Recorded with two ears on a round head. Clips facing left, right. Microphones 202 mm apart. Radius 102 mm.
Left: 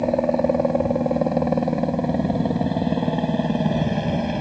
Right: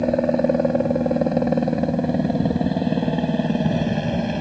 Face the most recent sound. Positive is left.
turn(degrees=-5)  # may be behind; listen again after turning